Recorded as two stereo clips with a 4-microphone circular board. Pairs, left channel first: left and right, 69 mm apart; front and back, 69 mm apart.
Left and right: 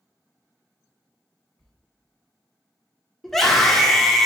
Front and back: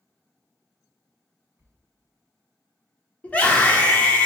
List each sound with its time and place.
1.6 s a sliding door: 165° left, 1.5 m
3.2 s a scream: 10° left, 1.0 m